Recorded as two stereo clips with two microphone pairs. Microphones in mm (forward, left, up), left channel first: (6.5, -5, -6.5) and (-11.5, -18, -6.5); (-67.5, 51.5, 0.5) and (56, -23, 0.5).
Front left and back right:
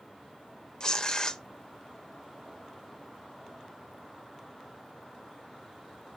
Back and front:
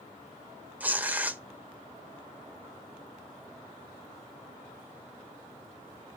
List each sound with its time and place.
0.8 s tearing paper: 40° left, 0.6 m